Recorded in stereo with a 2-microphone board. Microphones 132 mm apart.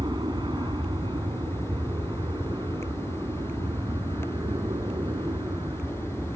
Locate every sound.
0.0 s an aircraft: 35° right (ahead or behind); by 6.4 s 30° right (ahead or behind)